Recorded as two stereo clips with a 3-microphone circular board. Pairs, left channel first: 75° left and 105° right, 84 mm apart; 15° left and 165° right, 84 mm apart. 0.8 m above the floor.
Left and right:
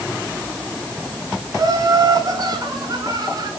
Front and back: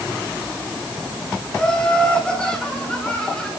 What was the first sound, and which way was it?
Laughter, 65° right.